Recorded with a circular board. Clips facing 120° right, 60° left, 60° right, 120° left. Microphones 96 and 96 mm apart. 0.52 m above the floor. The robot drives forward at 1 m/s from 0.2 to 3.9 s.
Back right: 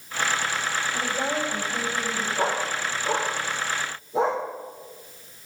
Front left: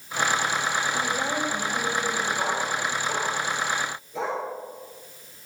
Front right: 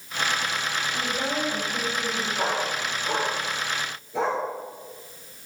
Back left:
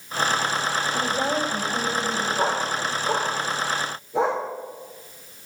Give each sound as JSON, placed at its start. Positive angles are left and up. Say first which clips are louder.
{"t": 0.9, "sound": "a woman speaking", "louder": "even, back left 4 dB", "azimuth_deg": 180, "distance_m": 2.5}
{"t": 2.4, "sound": "a dog barking", "louder": "back right 1 dB, back left 2 dB", "azimuth_deg": -160, "distance_m": 9.5}